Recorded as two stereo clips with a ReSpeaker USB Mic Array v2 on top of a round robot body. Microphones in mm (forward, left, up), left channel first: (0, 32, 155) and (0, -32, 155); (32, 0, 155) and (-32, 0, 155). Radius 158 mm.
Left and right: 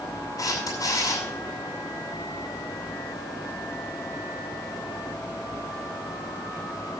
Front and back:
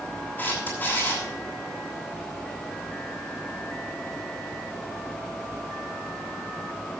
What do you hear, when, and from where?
0.4 s a camera shutter: 65° left, 6 m